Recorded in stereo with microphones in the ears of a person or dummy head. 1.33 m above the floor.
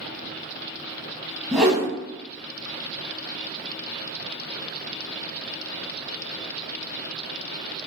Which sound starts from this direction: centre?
A whoosh, at 1.5 s.